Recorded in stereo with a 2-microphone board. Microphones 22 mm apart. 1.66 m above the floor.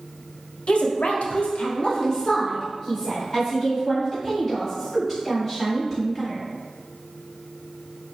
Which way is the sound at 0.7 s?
60° left (ahead or behind).